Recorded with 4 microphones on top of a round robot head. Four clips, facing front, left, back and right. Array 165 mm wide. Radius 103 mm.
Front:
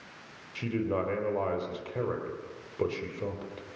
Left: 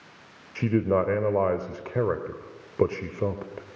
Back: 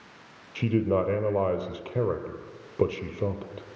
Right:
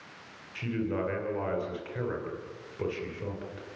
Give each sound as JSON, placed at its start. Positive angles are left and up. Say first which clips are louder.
{"t": 0.6, "sound": "a man speaking", "louder": "left 8 dB, back 6 dB", "azimuth_deg": 120, "distance_m": 3.0}